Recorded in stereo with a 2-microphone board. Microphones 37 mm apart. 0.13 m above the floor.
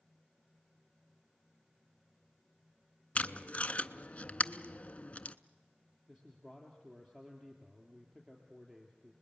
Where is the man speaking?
15° right (ahead or behind), 2.5 m.